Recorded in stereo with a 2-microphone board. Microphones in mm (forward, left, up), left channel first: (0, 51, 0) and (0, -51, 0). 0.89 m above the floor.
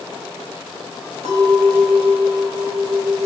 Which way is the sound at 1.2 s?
90° right.